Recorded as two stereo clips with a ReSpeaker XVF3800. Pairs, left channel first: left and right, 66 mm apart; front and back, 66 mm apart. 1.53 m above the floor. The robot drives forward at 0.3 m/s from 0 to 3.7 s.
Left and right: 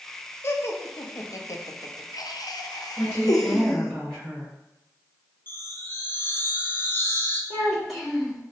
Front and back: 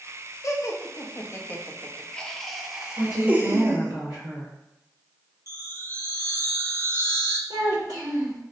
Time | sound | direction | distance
0.4 | laughter | 40° left | 0.8 m
3.0 | a woman speaking | straight behind | 2 m
5.5 | a chime | 140° left | 0.7 m
7.5 | a child speaking | straight behind | 1.5 m